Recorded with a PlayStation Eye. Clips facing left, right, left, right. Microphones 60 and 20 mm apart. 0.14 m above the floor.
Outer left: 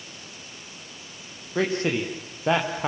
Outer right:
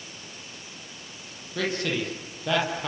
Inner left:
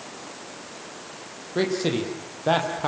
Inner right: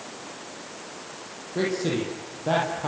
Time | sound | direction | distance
1.6 | a man speaking | 30° left (ahead or behind) | 5 m